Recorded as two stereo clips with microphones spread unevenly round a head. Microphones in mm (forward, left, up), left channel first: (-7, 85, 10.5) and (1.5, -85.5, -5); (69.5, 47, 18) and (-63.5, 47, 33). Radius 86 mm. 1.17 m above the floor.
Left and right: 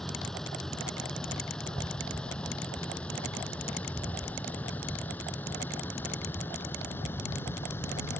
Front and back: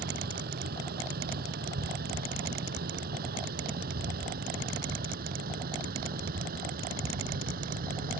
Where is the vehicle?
Straight behind; by 8.2 s 170° left.